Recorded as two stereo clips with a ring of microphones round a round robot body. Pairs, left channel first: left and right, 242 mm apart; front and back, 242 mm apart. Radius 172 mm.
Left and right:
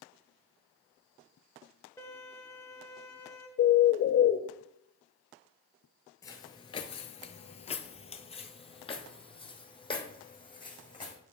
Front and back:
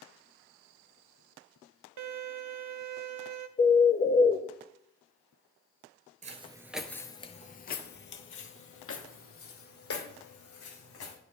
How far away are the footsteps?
About 0.7 m.